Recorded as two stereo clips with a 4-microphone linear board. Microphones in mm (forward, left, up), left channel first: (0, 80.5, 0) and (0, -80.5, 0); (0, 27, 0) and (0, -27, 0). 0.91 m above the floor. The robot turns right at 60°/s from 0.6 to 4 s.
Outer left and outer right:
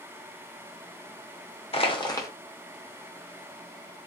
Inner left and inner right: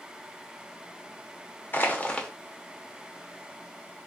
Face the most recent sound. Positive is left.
turn(degrees=-100)